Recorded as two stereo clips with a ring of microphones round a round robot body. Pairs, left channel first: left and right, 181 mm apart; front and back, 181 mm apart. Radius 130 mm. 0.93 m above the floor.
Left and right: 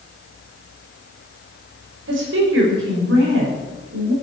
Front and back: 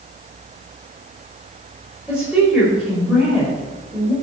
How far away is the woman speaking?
About 5 m.